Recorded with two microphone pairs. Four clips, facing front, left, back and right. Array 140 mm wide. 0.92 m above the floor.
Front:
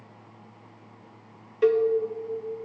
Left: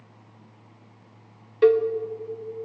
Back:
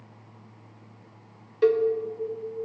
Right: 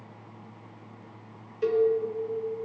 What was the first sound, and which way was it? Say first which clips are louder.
A cowbell: left 6 dB, even; 90° left.